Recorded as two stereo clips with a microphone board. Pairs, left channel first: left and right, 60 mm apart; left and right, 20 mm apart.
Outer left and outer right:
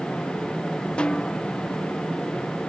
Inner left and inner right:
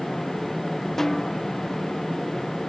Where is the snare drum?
20° left (ahead or behind).